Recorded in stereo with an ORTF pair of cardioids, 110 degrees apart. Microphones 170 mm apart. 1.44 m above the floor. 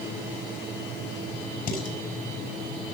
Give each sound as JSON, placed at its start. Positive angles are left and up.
{"t": 1.7, "sound": "dishes clattering", "azimuth_deg": 60, "distance_m": 6.5}